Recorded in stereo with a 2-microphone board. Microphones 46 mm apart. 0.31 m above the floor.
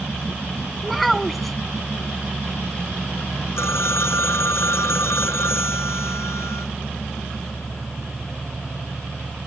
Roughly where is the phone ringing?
Left.